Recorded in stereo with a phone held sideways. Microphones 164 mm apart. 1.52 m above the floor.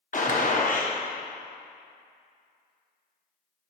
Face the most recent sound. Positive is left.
turn(degrees=55)  # may be behind; listen again after turning